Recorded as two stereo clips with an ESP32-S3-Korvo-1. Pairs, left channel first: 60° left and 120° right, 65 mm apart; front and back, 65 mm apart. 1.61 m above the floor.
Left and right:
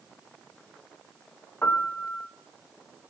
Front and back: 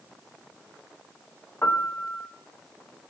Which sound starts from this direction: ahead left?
A piano, at 1.6 s.